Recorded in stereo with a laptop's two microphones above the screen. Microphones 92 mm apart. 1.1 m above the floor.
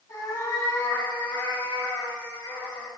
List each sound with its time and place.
0.1 s a cat meowing: 35° left (ahead or behind), 6 m; by 2.9 s 15° left (ahead or behind), 3.5 m